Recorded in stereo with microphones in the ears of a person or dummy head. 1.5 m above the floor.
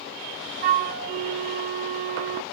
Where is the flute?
45° right (ahead or behind), 0.6 m.